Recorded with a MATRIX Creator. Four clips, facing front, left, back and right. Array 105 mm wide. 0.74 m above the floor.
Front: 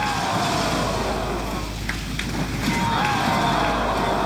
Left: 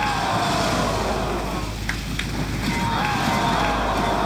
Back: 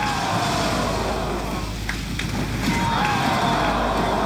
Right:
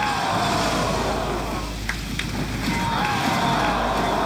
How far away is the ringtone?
No ringtone in this recording.